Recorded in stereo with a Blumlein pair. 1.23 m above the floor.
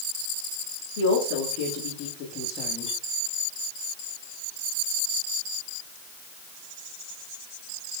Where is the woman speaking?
55° left, 2.5 m; by 3.0 s 15° left, 1.9 m.